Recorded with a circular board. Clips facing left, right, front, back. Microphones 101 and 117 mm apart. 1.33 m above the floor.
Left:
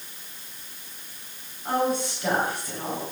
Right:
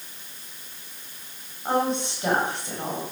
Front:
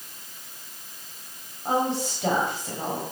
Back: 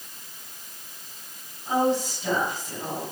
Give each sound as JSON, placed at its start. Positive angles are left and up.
{"t": 1.6, "sound": "a woman speaking", "azimuth_deg": -25, "distance_m": 7.0}